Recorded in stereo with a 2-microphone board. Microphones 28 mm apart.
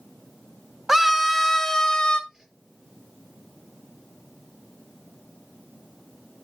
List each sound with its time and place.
0.9 s a scream: 10° right (ahead or behind), 1.5 m; by 2.2 s 30° left (ahead or behind), 1.6 m
2.3 s a whoosh: 20° right (ahead or behind), 4.5 m